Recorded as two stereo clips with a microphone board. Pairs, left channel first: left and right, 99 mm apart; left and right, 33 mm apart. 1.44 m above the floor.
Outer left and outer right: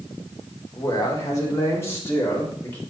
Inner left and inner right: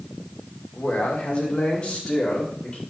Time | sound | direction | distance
0.7 | a man speaking | 40° left (ahead or behind) | 2.5 m